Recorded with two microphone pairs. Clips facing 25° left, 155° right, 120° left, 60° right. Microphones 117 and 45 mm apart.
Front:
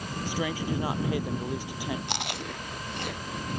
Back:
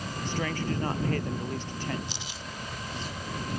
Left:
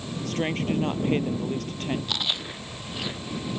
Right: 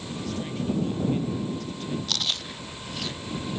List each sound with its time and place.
0.2 s a woman speaking: 105° left
2.1 s chewing: 50° left